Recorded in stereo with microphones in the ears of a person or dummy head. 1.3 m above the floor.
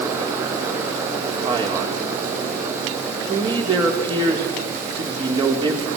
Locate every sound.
1.4 s a man speaking: 25° right (ahead or behind), 4.5 m